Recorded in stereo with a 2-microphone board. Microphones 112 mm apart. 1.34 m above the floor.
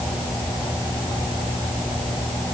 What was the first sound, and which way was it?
Only background noise.